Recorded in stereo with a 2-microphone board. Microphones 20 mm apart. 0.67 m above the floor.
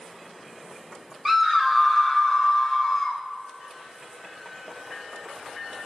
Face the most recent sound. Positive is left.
turn(degrees=15)  # may be behind; listen again after turning